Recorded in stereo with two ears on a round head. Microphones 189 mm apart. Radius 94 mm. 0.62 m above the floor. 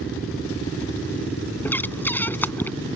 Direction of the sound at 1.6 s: 10° left (ahead or behind).